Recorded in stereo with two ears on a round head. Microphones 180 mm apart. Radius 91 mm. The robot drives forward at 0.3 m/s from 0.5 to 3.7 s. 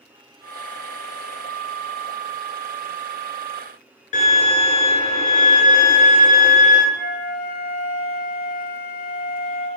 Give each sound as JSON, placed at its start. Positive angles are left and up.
{"t": 4.1, "sound": "a violin", "side_deg": 35, "distance_m": 0.8}
{"t": 6.9, "sound": "a flute", "side_deg": -45, "distance_m": 1.4}